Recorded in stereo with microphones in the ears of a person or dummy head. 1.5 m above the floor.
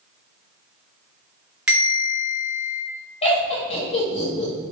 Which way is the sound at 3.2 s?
35° left (ahead or behind).